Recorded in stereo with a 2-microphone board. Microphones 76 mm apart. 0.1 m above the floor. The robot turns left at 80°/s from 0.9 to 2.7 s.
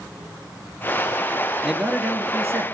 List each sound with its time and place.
1.6 s a man speaking: 5° right (ahead or behind), 1.4 m; by 2.6 s 30° right (ahead or behind), 1.4 m